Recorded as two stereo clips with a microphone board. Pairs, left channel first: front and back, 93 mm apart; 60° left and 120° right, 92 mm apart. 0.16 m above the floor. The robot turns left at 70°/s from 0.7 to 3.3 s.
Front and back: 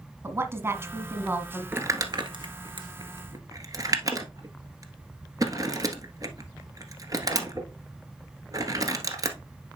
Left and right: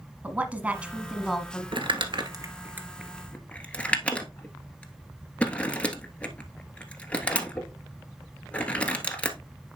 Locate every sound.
0.2 s a woman speaking: 175° right, 1.2 m; by 1.6 s 120° left, 1.2 m
1.7 s crumpling: 115° right, 1.3 m; by 9.4 s 135° left, 1.3 m